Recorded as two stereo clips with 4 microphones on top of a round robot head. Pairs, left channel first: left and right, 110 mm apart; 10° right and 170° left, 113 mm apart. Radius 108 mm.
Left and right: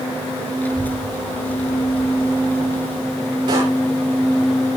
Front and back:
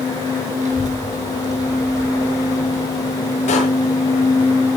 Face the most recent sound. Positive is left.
turn(degrees=-35)